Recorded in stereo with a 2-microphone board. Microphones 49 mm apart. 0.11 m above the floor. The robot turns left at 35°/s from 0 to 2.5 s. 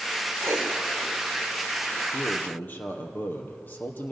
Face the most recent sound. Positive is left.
turn(degrees=40)  # may be behind; listen again after turning